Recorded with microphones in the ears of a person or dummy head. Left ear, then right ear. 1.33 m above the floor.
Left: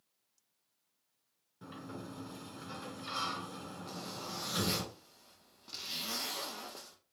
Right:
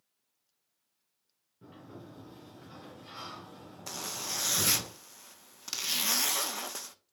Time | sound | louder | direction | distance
1.6 | a sliding door | left 3 dB | 55° left (ahead or behind) | 2.5 m
3.9 | a zipper | right 8 dB | 55° right (ahead or behind) | 0.6 m